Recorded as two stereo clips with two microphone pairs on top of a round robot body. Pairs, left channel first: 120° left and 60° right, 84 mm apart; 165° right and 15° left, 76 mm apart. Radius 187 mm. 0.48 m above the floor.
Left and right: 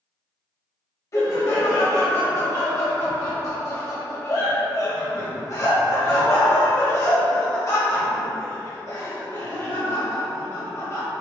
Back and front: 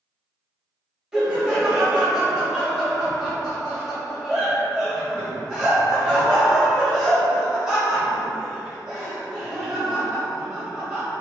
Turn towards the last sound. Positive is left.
turn(degrees=90)